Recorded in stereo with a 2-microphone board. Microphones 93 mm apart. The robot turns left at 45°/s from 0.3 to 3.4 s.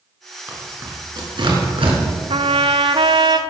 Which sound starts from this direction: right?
A trumpet, at 2.3 s.